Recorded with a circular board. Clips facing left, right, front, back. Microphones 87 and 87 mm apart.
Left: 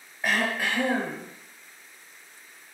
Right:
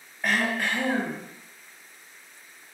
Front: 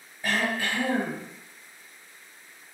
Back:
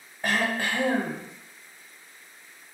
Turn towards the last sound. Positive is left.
turn(degrees=175)